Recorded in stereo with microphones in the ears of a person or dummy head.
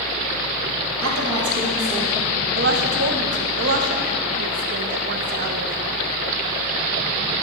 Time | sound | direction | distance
1.0 | a woman speaking | 70° right (ahead or behind) | 1.2 m
2.5 | a woman speaking | 50° right (ahead or behind) | 0.7 m